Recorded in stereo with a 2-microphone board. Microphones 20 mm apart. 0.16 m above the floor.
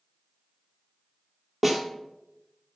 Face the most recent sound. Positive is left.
turn(degrees=0)  # may be behind; listen again after turning